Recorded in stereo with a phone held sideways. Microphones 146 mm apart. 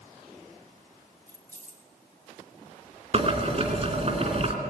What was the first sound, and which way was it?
Keys jangling, 60° left (ahead or behind).